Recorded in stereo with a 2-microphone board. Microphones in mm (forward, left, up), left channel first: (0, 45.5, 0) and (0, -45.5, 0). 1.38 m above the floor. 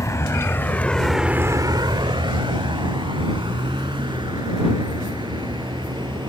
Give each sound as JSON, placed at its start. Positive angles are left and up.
{"t": 0.0, "sound": "a vehicle", "side_deg": 35}